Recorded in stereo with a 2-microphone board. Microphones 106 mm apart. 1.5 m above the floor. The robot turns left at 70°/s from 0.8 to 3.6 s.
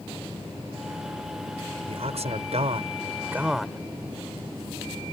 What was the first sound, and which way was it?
A man speaking, 60° right.